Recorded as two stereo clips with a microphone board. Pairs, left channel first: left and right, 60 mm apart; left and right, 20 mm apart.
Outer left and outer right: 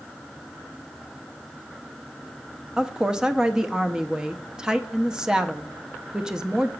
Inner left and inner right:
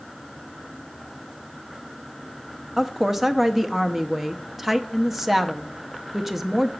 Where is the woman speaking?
10° right (ahead or behind), 0.7 m.